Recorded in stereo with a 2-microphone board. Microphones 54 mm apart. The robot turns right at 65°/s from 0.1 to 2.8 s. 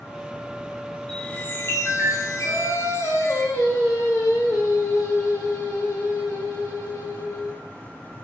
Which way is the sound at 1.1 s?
10° left.